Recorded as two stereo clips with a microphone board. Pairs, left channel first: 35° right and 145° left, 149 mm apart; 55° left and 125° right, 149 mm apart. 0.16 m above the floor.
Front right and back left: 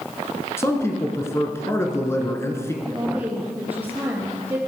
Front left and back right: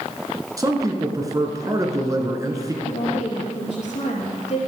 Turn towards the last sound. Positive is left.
turn(degrees=70)